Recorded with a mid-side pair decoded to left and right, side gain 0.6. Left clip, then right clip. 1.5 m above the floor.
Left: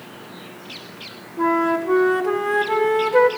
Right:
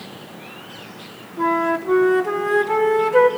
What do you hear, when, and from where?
1.4 s a flute: straight ahead, 1.5 m